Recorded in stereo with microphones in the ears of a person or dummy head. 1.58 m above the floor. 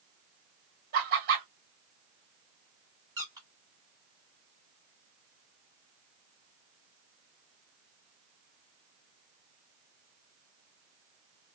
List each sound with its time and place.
0.9 s laughter: 50° right (ahead or behind), 1.6 m
3.2 s a squeak: 20° right (ahead or behind), 1.4 m